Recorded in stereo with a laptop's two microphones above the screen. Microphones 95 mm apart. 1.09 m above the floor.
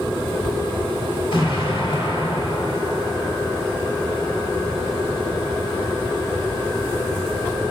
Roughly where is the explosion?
Left.